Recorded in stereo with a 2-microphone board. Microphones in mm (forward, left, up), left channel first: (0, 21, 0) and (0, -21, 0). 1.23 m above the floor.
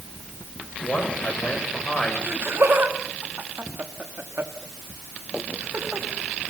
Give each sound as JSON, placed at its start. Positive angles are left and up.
{"t": 0.8, "sound": "a man speaking", "side_deg": 30, "distance_m": 6.5}
{"t": 2.3, "sound": "laughter", "side_deg": -65, "distance_m": 3.0}